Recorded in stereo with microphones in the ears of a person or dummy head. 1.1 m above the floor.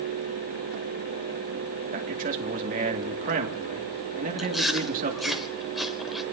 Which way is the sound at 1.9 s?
45° right (ahead or behind).